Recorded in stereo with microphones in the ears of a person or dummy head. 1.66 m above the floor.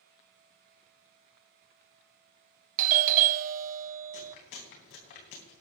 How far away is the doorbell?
About 0.6 m.